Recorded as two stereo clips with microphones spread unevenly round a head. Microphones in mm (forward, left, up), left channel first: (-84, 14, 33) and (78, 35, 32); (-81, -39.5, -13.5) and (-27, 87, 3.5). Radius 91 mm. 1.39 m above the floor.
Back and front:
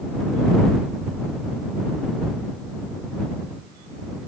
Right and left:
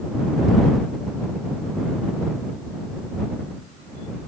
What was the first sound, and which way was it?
Only background noise.